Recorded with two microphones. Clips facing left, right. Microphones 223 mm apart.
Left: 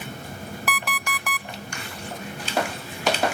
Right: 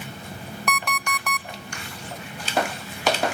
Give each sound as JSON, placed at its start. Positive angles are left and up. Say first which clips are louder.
{"t": 0.7, "sound": "an alarm clock", "louder": "right 4 dB", "side_deg": 5, "distance_m": 0.6}